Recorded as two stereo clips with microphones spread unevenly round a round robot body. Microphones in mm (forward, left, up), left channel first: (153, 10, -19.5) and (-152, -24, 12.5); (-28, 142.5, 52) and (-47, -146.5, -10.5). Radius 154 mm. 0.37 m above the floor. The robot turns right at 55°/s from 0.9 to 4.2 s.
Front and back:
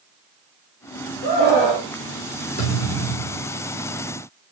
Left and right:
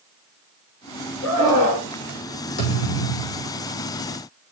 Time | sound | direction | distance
1.2 | a scream | 10° right | 4 m
2.6 | a thud | 70° left | 6 m